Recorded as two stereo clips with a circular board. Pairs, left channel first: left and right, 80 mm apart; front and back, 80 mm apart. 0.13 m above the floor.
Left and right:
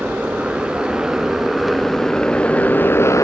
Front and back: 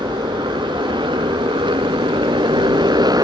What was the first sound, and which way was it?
A motorcycle, 165° right.